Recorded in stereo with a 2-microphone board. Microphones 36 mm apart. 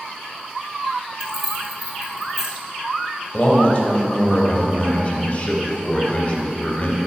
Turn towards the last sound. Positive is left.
turn(degrees=30)  # may be behind; listen again after turning